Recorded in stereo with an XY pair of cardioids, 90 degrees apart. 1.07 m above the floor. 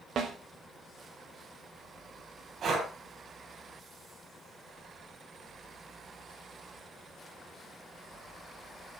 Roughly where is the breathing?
Ahead right.